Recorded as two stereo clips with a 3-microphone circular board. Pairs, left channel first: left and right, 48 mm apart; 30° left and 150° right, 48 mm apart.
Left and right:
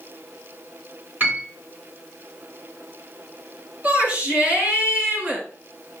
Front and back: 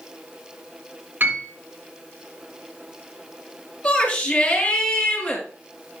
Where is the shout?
30° right, 3.5 m.